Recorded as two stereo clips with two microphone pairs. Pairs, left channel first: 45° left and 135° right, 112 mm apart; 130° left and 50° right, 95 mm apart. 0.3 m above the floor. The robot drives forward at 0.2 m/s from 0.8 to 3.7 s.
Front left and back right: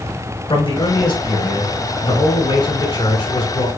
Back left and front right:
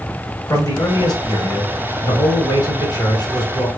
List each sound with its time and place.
0.5 s a man speaking: 85° left, 4 m; by 3.7 s 95° left, 4 m